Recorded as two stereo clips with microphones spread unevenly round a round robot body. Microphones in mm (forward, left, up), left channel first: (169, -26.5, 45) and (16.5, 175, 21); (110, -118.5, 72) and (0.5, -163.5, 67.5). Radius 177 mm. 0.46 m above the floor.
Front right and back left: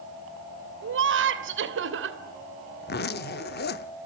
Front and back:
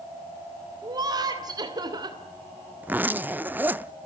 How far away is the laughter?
About 2.5 m.